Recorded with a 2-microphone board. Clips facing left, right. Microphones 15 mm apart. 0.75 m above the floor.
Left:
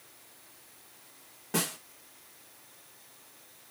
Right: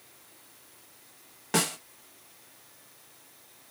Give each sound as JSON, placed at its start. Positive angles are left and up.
{"t": 1.5, "sound": "a snare drum", "side_deg": -35, "distance_m": 0.8}